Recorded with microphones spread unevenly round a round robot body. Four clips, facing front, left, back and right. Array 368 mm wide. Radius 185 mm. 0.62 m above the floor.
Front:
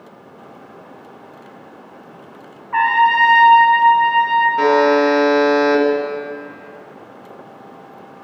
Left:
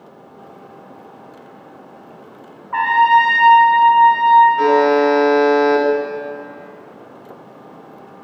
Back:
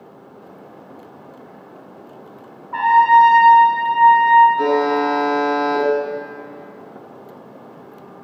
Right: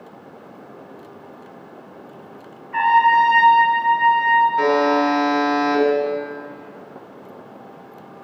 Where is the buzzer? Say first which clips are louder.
Left 4 dB, front 4 dB; 15° right, 2 m.